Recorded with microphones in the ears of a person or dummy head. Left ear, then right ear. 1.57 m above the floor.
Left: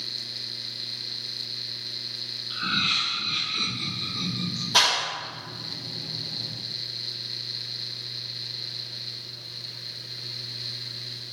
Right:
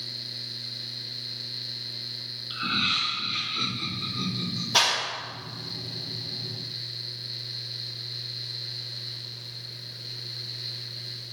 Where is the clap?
Centre (ahead or behind), 1.6 m.